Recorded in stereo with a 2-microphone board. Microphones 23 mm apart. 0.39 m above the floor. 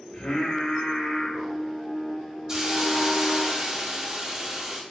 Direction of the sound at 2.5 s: 25° right (ahead or behind).